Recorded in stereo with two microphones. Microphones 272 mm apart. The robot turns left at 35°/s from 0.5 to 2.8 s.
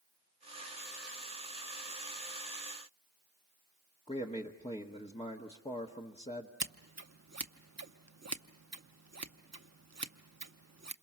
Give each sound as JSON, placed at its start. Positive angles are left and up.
{"t": 4.1, "sound": "a man speaking", "side_deg": 20, "distance_m": 1.2}
{"t": 6.6, "sound": "scissors", "side_deg": -70, "distance_m": 0.7}